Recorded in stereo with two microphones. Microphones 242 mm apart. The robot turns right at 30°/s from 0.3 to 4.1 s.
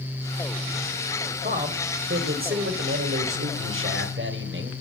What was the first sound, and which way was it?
A man speaking, 140° right.